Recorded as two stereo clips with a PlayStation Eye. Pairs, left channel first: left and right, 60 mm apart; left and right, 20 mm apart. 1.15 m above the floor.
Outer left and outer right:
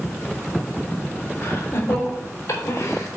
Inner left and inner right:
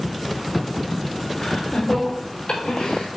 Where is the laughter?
55° left (ahead or behind), 3.5 m; by 3.1 s 65° left (ahead or behind), 4 m.